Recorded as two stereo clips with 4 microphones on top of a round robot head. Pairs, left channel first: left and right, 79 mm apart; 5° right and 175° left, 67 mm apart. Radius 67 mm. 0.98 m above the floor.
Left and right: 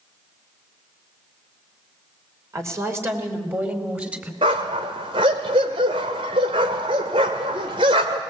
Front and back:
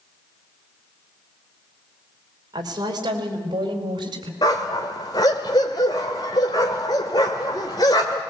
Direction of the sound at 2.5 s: 140° right.